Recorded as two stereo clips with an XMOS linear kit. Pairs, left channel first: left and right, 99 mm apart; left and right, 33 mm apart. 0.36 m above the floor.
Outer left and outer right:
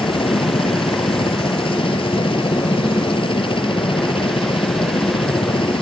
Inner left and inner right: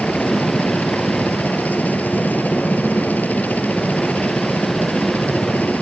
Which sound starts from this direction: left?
A helicopter, at 0.0 s.